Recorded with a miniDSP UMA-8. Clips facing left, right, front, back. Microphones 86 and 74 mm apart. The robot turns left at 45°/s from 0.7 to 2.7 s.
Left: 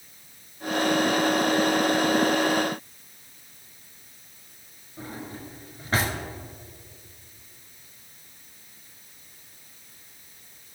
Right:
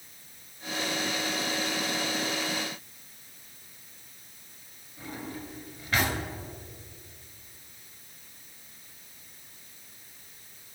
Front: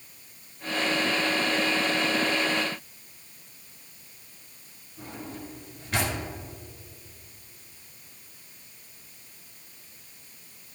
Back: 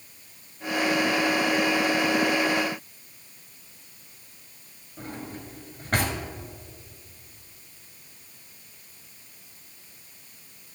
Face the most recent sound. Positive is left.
turn(degrees=140)